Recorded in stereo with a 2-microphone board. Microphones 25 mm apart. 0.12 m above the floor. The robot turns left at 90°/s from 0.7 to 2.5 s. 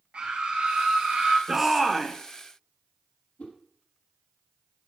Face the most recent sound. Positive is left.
turn(degrees=65)  # may be behind; listen again after turning